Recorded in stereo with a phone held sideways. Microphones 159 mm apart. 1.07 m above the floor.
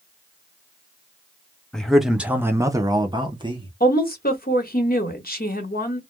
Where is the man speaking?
5° left (ahead or behind), 0.6 m; by 3.7 s 30° right (ahead or behind), 0.9 m.